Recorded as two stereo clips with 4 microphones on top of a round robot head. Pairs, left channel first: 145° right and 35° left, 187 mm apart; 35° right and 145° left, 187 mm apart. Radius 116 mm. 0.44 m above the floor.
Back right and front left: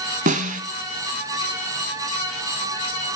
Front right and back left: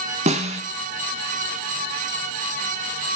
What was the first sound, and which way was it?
A snare drum, 85° left.